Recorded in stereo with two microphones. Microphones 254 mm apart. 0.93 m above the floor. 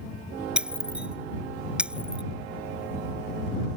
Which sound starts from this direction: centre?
Breaking glass, at 0.6 s.